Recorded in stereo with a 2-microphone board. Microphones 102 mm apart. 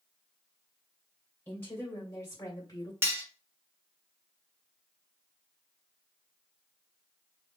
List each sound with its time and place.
1.5 s a woman speaking: 15° left (ahead or behind), 2.5 m; by 2.9 s 40° left (ahead or behind), 1.9 m
3.0 s cutlery clinking: 25° right (ahead or behind), 1.0 m